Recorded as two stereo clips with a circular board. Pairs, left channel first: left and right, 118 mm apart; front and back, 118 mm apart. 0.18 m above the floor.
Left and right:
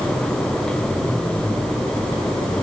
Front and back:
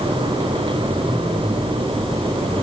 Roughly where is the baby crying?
No baby crying in this recording.